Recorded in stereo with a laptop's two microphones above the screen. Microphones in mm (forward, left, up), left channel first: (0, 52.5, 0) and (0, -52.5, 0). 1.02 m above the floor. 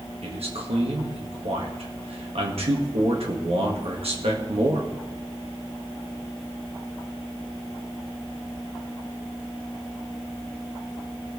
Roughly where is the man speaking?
Right.